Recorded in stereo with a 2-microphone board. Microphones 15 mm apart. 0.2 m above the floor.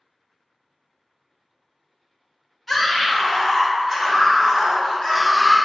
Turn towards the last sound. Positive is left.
turn(degrees=20)  # may be behind; listen again after turning